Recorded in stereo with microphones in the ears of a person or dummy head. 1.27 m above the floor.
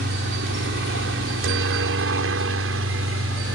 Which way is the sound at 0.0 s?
65° right (ahead or behind).